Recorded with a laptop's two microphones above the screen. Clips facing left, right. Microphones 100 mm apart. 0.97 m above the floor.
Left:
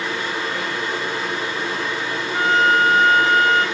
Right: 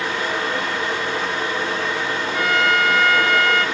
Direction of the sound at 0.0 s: 70° right (ahead or behind).